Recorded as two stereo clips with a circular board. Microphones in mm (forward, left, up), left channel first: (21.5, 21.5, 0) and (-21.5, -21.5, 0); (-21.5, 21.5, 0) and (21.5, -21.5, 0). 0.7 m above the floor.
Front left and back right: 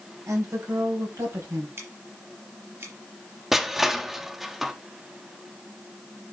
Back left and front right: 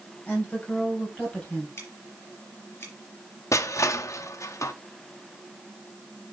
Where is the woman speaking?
160° right, 4 m.